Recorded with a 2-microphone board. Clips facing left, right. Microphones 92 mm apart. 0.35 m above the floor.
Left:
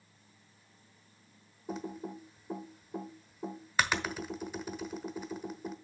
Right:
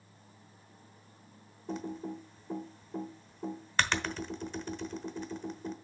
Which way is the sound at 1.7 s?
10° left (ahead or behind).